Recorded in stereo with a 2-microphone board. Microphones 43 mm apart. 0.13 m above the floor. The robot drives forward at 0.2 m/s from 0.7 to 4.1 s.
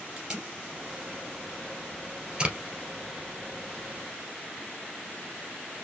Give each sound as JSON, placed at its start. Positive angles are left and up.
{"t": 0.2, "sound": "tape being pulled", "side_deg": -20, "distance_m": 2.5}